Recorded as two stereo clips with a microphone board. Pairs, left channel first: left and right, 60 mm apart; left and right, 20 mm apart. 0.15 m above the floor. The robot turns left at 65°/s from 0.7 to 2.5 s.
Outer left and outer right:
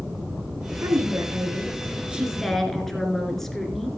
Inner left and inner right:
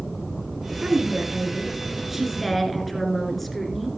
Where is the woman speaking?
75° right, 2.5 m; by 3.9 s 175° left, 2.5 m.